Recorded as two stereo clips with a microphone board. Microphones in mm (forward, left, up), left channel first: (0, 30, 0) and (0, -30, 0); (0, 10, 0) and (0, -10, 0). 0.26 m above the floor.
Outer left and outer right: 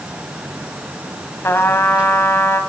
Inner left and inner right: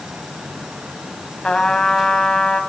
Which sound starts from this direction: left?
A trumpet, at 1.4 s.